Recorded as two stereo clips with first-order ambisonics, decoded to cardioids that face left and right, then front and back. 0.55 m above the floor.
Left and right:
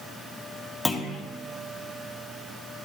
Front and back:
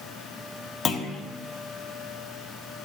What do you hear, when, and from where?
0.8 s a clunk: 15° left, 0.5 m